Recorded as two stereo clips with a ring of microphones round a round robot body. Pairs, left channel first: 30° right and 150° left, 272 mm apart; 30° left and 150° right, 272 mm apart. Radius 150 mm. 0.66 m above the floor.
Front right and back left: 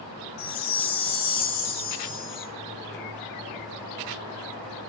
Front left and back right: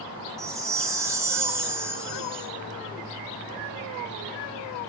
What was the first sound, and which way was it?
A chime, 70° right.